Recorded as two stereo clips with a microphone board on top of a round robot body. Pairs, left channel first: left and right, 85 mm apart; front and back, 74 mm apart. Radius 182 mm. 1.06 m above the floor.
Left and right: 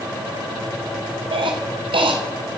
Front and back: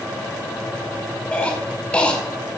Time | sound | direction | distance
1.3 | a cough | 70° right | 2.5 m